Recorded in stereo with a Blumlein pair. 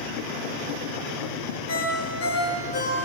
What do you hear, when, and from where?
1.7 s a ringtone: 55° left, 8 m